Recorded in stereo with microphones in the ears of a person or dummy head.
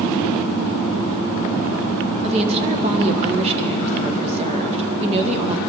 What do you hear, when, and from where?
2.2 s a woman speaking: 35° right (ahead or behind), 1.8 m